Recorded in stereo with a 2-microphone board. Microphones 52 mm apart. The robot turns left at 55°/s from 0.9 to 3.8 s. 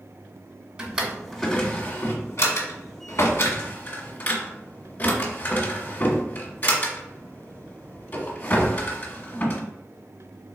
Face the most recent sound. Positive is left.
turn(degrees=35)  # may be behind; listen again after turning